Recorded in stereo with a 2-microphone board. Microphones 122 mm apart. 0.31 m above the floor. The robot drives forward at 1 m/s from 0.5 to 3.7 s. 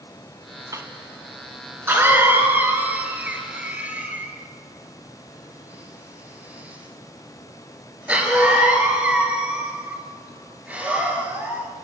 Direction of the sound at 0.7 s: 25° right (ahead or behind).